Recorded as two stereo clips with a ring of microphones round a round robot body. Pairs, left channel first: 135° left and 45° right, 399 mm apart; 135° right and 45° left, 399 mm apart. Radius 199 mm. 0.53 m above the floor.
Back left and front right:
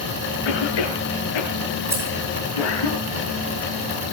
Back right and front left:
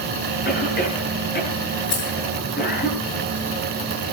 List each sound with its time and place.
0.5 s a cough: 155° left, 8.5 m
1.9 s keys jangling: 130° right, 6.5 m